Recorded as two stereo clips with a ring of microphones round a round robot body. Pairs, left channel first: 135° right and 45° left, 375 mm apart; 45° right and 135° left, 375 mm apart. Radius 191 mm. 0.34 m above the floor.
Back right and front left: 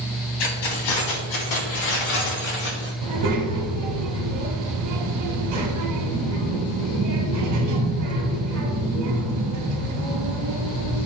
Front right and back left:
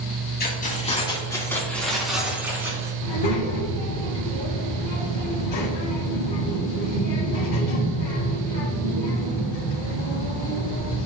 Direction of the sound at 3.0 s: Straight ahead.